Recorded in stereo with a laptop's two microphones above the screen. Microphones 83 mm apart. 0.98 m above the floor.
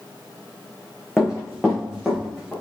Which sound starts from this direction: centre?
Running footsteps, at 1.2 s.